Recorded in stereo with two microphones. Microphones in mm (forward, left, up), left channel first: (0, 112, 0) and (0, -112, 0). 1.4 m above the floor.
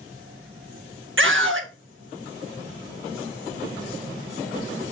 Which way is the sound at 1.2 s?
60° right (ahead or behind).